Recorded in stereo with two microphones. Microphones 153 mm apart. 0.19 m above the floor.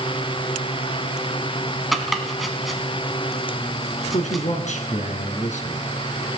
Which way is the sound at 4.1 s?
50° left (ahead or behind).